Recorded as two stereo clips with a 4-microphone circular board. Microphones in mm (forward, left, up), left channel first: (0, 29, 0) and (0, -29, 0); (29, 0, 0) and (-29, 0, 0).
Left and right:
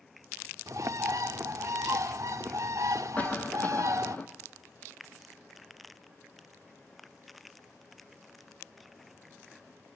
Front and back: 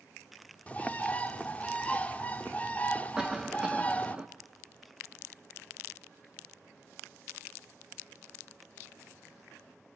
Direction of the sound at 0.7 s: 65° right.